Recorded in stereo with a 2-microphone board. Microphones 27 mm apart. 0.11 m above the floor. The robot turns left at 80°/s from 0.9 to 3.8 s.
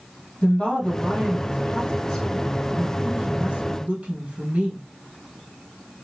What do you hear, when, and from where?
0.4 s a woman speaking: 140° left, 3.5 m; by 4.8 s 95° right, 3.5 m